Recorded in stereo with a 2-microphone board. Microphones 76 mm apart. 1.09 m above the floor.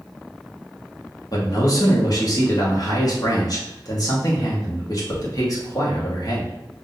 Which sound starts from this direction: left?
A man speaking, at 1.3 s.